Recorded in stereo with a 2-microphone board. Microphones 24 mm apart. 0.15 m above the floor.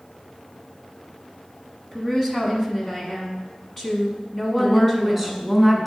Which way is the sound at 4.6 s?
Centre (ahead or behind).